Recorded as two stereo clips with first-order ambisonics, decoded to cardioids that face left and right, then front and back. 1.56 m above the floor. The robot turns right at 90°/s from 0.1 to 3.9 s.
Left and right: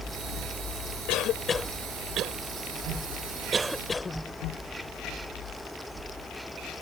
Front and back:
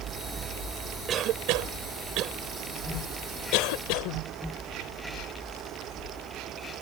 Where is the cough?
120° left; by 4.2 s 15° left.